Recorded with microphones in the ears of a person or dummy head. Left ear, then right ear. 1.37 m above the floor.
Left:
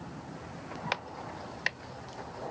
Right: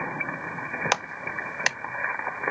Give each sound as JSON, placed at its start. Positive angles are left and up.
{"t": 0.9, "sound": "a clap", "side_deg": -40}